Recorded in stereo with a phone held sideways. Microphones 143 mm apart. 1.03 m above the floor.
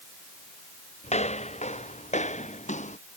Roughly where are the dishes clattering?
I don't hear dishes clattering.